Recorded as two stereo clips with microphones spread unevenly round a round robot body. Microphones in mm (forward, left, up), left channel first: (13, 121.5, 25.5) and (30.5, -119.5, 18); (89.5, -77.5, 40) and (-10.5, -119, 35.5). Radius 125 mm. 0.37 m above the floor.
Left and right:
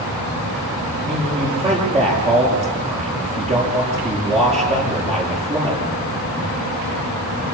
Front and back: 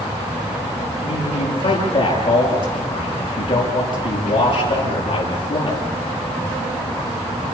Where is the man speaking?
20° right, 8.5 m.